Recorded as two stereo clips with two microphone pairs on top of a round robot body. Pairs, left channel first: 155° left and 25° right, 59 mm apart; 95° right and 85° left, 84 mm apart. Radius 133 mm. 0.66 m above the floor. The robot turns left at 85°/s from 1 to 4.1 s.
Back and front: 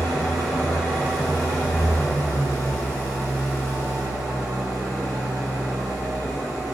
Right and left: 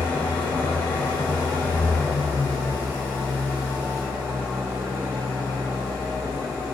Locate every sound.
0.0 s an engine running: 100° right, 1.8 m; by 6.8 s 5° right, 1.8 m